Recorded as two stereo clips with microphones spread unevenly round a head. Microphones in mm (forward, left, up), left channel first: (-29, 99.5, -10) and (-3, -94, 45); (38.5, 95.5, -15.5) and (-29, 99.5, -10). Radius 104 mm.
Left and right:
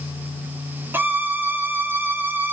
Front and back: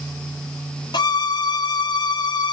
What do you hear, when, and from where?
0.9 s a violin: straight ahead, 1.8 m